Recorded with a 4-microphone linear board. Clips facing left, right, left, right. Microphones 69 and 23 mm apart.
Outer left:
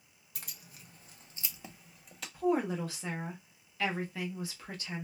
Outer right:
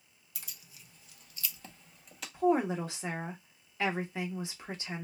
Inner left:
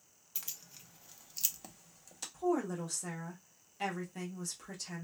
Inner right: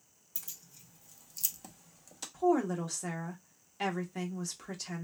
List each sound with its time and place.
0.3 s keys jangling: 50° left (ahead or behind), 0.6 m; by 2.2 s centre (ahead or behind), 0.7 m
2.3 s a woman speaking: 20° right (ahead or behind), 0.5 m